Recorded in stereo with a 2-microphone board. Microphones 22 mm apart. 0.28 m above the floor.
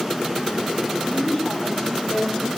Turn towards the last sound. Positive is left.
turn(degrees=45)  # may be behind; listen again after turning